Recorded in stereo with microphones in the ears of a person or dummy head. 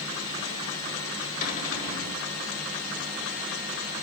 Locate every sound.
1.4 s a cupboard door: 55° left (ahead or behind), 6 m